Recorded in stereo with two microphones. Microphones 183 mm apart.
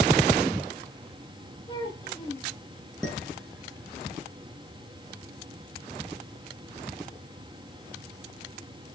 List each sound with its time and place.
1.7 s a child speaking: 25° left (ahead or behind), 4.5 m
3.0 s dishes clattering: 5° left (ahead or behind), 5 m